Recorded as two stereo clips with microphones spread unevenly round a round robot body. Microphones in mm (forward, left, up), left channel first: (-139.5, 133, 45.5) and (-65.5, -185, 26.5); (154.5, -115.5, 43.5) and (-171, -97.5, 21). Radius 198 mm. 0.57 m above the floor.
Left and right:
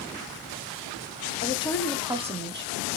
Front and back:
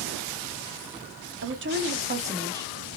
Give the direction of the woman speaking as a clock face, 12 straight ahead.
6 o'clock.